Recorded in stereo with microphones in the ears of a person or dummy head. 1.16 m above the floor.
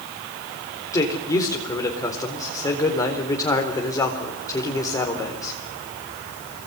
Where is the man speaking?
15° left (ahead or behind), 4 m.